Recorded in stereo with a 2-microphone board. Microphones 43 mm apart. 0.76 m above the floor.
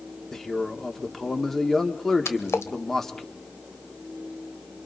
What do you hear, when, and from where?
0.3 s a man speaking: 10° left (ahead or behind), 2 m
2.2 s a splash: 85° left, 1.6 m